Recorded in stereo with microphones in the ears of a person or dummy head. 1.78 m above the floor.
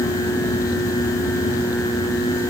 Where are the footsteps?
No footsteps in this recording.